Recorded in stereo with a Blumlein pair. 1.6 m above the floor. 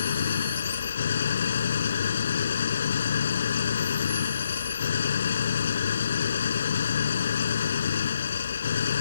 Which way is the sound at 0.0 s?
70° left.